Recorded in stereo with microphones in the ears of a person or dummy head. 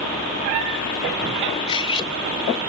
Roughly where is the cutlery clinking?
Left.